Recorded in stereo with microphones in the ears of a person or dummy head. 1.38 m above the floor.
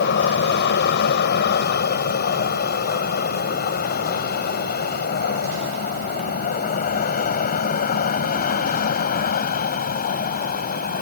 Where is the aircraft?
60° left (ahead or behind); by 11.0 s 45° left (ahead or behind).